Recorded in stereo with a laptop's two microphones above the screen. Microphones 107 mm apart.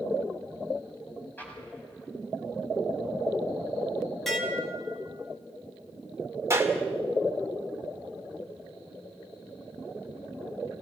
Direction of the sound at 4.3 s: Centre (ahead or behind).